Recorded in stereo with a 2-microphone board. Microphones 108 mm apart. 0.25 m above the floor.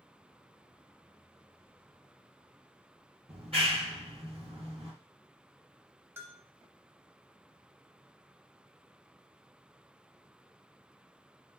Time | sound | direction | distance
3.3 | a clap | 60° right (ahead or behind) | 2.5 m
6.2 | a bell | 25° right (ahead or behind) | 0.7 m